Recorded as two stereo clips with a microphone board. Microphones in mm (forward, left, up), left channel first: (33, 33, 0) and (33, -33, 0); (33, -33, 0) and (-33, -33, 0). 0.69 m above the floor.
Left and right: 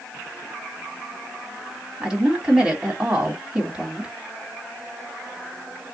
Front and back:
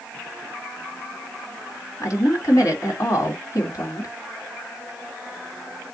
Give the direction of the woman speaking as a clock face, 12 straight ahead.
1 o'clock.